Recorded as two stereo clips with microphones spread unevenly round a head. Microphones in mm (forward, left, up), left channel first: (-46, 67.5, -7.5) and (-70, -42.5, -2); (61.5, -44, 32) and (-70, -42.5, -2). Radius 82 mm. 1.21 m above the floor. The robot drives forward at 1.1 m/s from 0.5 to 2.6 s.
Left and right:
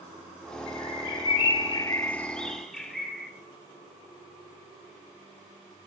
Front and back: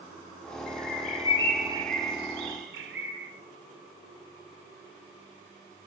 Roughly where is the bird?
Ahead.